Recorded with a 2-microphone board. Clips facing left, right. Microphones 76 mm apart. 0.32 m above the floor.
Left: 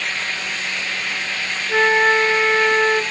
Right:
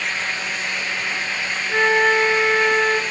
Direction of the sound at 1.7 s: 15° left (ahead or behind).